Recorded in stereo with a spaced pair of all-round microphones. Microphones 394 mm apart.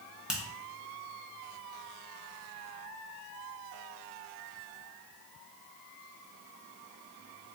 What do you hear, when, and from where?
0.3 s a finger snap: centre (ahead or behind), 1.2 m